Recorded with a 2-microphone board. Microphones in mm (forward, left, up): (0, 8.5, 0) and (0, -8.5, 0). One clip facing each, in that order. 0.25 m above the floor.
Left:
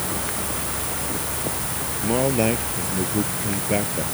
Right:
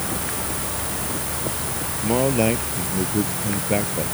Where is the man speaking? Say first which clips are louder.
Right 1 dB; centre (ahead or behind).